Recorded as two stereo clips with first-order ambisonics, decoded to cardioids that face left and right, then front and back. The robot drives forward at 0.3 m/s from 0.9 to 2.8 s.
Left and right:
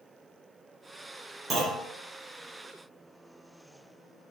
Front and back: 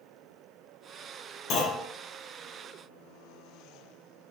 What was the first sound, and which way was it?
A clunk, 30° right.